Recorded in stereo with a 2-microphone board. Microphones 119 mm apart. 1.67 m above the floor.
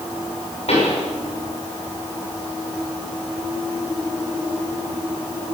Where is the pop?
60° left (ahead or behind), 7 m.